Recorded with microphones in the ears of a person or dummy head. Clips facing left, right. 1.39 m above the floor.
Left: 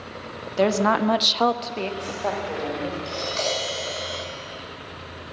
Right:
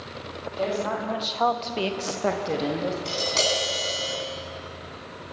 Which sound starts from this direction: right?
Tapping, at 3.0 s.